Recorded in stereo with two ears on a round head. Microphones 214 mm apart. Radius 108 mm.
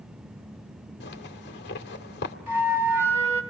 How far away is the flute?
About 2 m.